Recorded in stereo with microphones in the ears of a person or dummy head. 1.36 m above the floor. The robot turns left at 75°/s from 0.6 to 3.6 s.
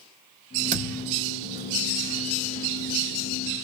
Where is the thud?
50° right, 1.3 m; by 1.1 s 85° right, 1.3 m.